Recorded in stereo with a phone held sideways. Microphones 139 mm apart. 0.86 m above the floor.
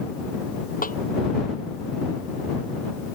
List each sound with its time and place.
0.8 s a snare drum: 85° left